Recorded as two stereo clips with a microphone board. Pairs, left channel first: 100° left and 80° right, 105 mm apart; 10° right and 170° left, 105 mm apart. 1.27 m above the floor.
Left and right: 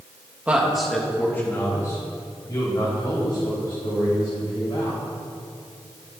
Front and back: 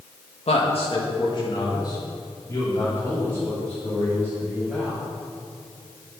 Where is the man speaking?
5° right, 1.8 m; by 5.0 s 65° left, 6.5 m.